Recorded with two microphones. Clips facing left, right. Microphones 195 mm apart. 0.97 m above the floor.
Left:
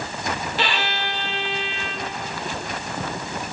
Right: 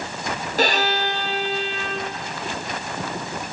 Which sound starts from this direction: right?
A violin, at 0.6 s.